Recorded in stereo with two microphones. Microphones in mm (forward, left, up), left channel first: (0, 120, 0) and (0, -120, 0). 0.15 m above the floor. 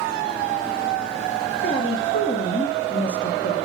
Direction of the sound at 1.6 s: 45° left (ahead or behind).